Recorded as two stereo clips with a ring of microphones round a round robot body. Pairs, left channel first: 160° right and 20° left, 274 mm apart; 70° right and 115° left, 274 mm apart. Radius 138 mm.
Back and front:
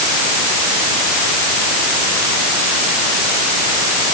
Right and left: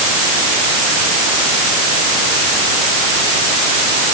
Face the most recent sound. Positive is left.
No sound to turn to.